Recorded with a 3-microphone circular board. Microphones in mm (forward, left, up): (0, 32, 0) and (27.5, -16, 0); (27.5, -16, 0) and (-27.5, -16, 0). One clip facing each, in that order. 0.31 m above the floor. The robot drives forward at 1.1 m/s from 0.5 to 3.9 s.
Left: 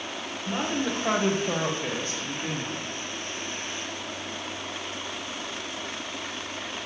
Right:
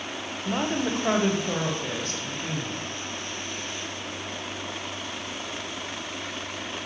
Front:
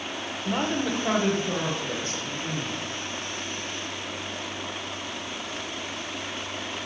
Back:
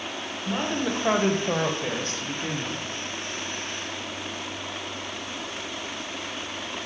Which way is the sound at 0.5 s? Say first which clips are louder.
Right 2 dB, front 1 dB; 60° right.